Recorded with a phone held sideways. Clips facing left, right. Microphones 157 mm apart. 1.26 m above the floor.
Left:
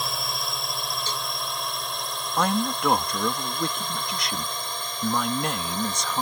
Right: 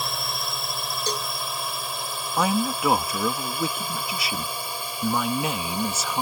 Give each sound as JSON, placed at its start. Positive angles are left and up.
{"t": 0.0, "sound": "a drone", "side_deg": 0}
{"t": 1.1, "sound": "a cowbell", "side_deg": -45}
{"t": 2.4, "sound": "a man speaking", "side_deg": -5}